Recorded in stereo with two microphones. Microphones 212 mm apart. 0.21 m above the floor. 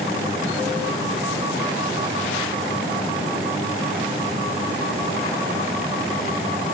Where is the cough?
No cough in this recording.